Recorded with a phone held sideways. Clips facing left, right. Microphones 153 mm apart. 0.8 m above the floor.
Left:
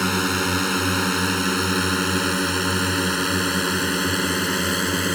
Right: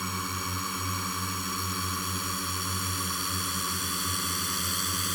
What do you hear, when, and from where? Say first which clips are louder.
0.0 s a drone: left 13 dB; 80° left; by 5.2 s 70° left (ahead or behind)